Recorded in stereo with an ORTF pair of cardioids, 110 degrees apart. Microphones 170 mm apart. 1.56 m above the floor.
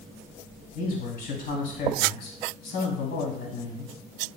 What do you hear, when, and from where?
0.8 s a man speaking: 60° left, 2.5 m